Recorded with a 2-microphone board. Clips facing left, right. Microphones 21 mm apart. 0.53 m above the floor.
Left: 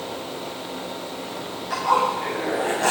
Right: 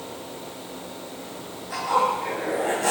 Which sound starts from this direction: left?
A zipper, at 1.7 s.